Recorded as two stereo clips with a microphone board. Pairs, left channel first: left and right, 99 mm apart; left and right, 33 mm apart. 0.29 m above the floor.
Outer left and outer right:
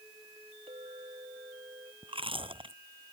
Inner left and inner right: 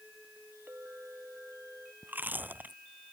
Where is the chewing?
60° right (ahead or behind).